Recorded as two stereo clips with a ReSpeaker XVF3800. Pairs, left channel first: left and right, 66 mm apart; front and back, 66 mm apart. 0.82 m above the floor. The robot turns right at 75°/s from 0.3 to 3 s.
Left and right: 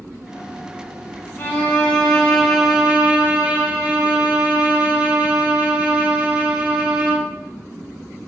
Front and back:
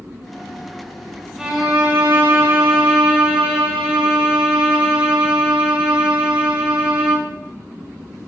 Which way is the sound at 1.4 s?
100° left.